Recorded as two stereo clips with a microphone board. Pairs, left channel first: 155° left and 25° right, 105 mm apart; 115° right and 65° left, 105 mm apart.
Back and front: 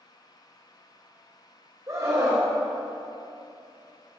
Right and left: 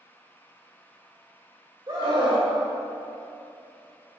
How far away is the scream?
About 3 m.